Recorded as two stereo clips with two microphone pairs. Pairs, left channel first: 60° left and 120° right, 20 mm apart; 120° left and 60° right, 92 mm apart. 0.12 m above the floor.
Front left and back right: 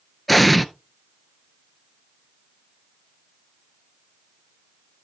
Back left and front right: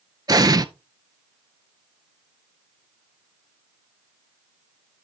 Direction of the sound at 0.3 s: 25° right.